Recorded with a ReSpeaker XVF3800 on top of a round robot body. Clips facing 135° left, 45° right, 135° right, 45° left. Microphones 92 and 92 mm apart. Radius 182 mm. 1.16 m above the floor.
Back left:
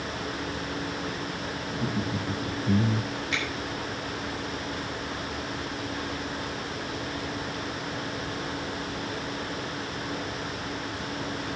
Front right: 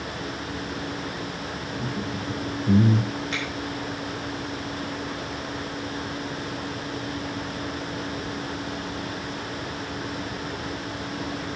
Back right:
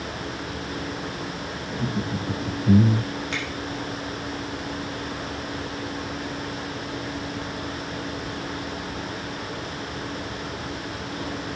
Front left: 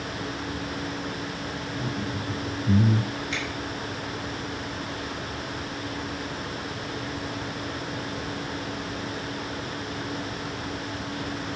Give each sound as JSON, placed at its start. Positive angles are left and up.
{"t": 1.7, "sound": "laughter", "azimuth_deg": -160, "distance_m": 1.9}
{"t": 3.3, "sound": "a finger snap", "azimuth_deg": -95, "distance_m": 5.5}